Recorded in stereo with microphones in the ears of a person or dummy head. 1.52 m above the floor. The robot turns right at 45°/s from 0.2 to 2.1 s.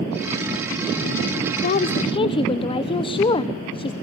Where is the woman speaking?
45° left (ahead or behind), 1.0 m; by 3.9 s 25° left (ahead or behind), 1.0 m.